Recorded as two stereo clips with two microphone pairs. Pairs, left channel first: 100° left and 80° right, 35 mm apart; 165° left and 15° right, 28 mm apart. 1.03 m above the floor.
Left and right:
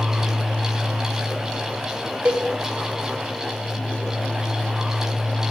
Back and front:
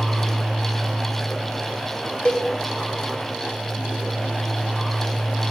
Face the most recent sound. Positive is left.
turn(degrees=-140)